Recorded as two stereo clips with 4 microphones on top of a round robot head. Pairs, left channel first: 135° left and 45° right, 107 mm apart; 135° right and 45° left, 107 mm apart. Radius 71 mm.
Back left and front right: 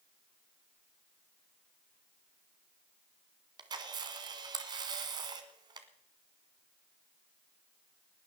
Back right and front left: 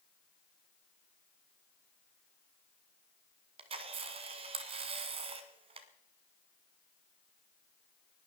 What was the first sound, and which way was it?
A camera shutter, 10° left.